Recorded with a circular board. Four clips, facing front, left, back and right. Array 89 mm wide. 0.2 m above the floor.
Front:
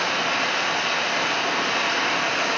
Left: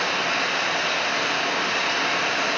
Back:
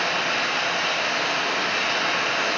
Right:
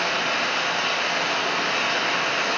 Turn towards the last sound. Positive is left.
turn(degrees=25)